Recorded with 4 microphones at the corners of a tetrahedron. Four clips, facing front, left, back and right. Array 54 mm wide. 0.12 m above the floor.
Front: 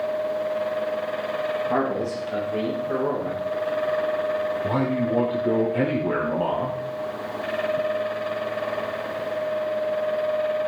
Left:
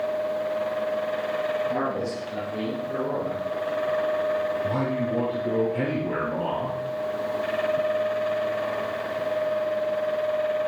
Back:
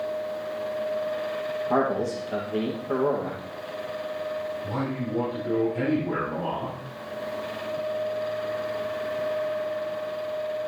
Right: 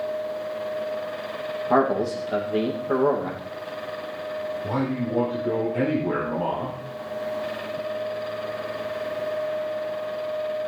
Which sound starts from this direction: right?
A man speaking, at 1.7 s.